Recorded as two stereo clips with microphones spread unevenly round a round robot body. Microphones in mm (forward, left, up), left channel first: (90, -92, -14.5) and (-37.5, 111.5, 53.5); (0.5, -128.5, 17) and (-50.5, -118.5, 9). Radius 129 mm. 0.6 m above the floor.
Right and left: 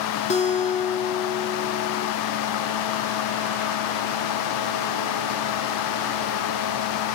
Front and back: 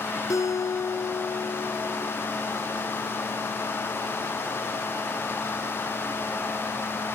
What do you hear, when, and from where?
0.3 s a guitar: 10° left, 1.7 m